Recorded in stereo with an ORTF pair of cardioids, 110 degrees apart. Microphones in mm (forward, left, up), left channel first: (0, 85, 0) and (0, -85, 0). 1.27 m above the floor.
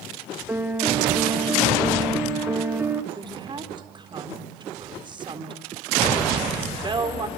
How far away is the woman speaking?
About 4 m.